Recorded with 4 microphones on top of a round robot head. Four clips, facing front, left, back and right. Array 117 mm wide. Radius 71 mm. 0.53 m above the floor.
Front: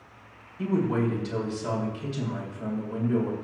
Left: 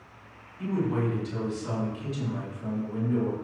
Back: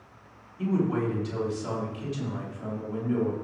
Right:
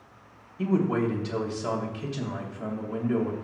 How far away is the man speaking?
About 3 m.